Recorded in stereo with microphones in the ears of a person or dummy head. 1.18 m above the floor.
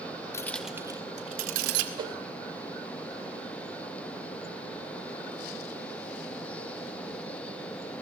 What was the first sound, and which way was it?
Keys jangling, 20° left (ahead or behind).